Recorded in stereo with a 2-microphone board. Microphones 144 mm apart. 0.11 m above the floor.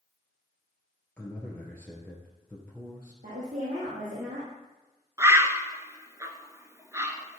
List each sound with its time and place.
1.2 s a man speaking: 10° left (ahead or behind), 2.5 m
3.2 s a woman speaking: 70° right (ahead or behind), 4.5 m
5.2 s a bird: 20° right (ahead or behind), 1.2 m